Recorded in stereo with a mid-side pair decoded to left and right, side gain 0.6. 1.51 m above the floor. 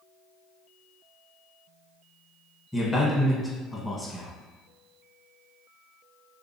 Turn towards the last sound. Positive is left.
turn(degrees=5)